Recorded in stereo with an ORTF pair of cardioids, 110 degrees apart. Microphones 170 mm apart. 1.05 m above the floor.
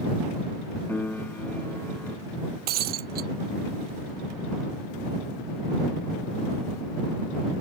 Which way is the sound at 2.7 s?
65° right.